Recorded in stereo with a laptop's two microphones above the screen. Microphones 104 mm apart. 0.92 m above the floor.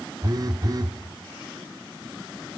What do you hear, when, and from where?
0.2 s a phone buzzing: 40° right (ahead or behind), 0.8 m